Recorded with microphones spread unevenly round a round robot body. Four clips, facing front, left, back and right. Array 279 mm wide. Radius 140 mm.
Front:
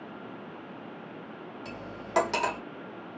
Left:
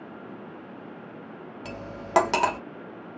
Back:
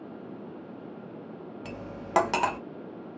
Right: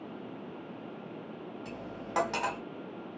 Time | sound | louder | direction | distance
1.6 | cutlery clinking | left 4 dB, back 2 dB | 110° left | 0.5 m